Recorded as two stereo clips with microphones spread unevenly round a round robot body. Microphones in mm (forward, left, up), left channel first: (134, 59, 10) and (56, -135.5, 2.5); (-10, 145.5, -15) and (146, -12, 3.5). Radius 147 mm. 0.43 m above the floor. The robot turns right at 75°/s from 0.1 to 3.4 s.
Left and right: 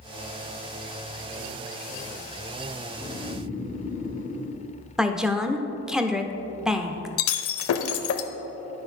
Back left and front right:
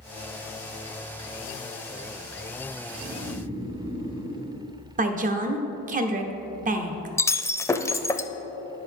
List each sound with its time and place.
2.9 s snoring: 20° right, 3.5 m; by 4.6 s 25° left, 3.5 m
5.0 s a woman speaking: 30° right, 0.8 m
7.2 s breaking glass: 55° left, 0.6 m